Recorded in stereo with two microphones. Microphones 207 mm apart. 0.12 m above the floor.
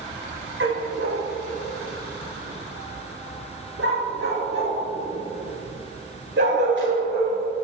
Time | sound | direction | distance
0.6 | a dog barking | 70° right (ahead or behind) | 2 m